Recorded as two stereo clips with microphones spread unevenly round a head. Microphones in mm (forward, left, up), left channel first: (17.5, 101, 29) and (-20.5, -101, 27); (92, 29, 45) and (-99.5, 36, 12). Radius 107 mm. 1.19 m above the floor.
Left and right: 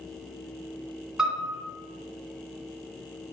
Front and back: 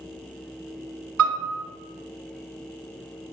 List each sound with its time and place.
1.2 s a piano: 170° left, 2.5 m